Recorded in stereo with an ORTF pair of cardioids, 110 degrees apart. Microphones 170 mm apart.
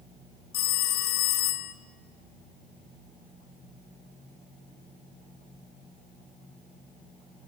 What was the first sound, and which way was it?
A phone ringing, 70° left.